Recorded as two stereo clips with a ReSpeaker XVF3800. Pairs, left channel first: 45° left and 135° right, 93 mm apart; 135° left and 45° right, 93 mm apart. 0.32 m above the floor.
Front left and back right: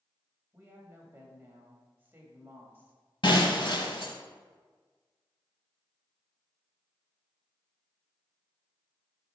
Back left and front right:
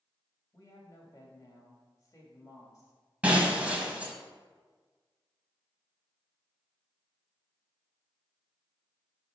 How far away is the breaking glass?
About 1.2 m.